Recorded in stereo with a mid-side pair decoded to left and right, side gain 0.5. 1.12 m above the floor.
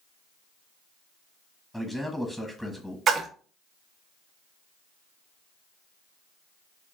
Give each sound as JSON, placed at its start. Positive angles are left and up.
{"t": 1.7, "sound": "a man speaking", "azimuth_deg": 0, "distance_m": 1.1}
{"t": 3.1, "sound": "a splash", "azimuth_deg": -55, "distance_m": 0.6}